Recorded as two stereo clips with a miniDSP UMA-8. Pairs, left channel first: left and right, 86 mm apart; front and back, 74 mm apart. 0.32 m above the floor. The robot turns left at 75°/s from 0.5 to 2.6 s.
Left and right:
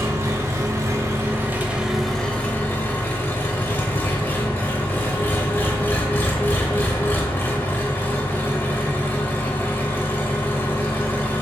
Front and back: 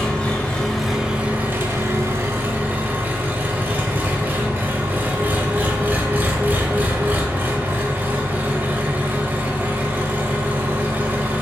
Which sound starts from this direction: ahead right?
An engine running, at 0.0 s.